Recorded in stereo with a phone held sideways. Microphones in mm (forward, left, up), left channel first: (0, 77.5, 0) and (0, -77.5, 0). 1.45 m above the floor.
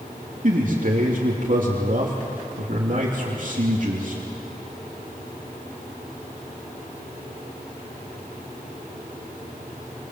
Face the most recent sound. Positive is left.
turn(degrees=-55)  # may be behind; listen again after turning